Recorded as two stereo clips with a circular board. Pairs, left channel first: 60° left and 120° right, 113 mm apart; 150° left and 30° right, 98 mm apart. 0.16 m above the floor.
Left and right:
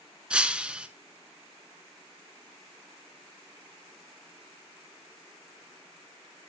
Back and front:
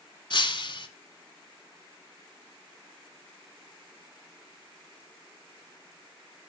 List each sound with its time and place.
0.3 s breaking glass: 160° left, 0.5 m